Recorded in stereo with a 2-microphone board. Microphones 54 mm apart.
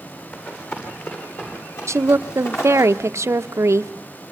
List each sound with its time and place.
0.3 s running footsteps: 40° left (ahead or behind), 9 m; by 2.9 s 45° left (ahead or behind), 9.5 m
1.9 s a woman speaking: 55° right (ahead or behind), 0.7 m